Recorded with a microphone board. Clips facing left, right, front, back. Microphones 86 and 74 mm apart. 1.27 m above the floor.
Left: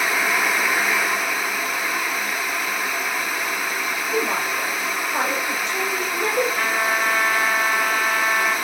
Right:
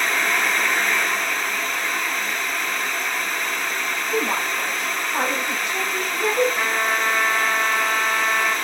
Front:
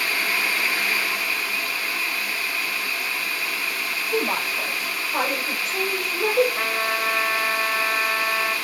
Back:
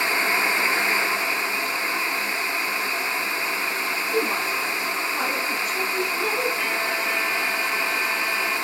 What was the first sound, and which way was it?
A woman speaking, 5° left.